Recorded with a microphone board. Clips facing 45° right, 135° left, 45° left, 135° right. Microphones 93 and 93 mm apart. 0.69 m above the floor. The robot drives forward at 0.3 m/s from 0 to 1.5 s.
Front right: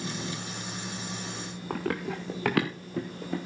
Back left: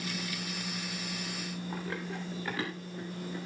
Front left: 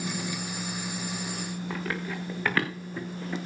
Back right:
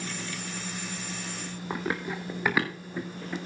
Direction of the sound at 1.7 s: 70° right.